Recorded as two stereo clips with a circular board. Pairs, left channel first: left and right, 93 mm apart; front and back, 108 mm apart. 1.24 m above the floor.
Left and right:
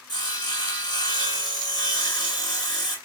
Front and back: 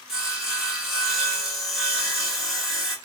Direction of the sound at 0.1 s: 95° left.